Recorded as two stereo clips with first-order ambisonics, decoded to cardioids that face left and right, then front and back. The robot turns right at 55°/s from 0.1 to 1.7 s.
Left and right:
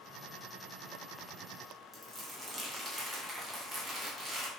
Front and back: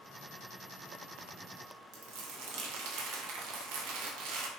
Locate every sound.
1.9 s crumpling: 165° right, 0.7 m